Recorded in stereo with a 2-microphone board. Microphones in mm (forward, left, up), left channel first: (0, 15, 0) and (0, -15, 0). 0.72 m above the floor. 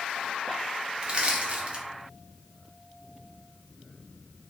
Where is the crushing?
30° right (ahead or behind), 0.6 m.